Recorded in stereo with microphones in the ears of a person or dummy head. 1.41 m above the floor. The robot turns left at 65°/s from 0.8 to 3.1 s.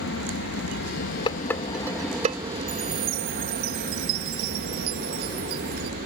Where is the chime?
35° right (ahead or behind); by 5.9 s 55° right (ahead or behind).